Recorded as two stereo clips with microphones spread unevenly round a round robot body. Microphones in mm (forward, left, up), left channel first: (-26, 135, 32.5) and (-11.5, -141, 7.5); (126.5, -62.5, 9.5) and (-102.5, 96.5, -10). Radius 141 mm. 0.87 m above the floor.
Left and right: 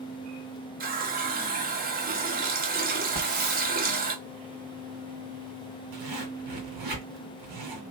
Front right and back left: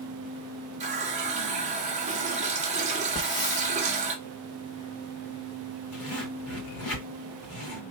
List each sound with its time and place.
0.8 s a running tap: 145° right, 1.1 m
3.1 s a hiss: 110° right, 2.5 m
5.9 s a zipper: 80° right, 2.5 m